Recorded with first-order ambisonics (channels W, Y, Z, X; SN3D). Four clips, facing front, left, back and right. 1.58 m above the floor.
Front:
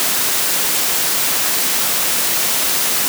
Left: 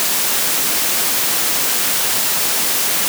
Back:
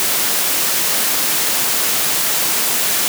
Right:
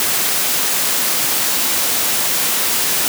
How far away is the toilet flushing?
I don't hear a toilet flushing.